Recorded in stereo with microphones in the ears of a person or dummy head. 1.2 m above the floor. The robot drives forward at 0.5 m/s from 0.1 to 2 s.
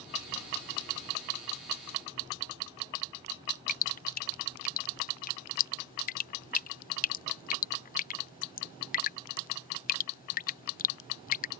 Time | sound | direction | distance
3.7 | dripping | 40° left (ahead or behind) | ?